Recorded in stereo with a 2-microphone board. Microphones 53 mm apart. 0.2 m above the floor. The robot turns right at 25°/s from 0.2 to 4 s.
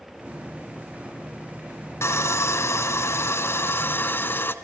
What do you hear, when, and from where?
2.0 s sawing: 75° left, 0.9 m; by 4.5 s 125° left, 0.9 m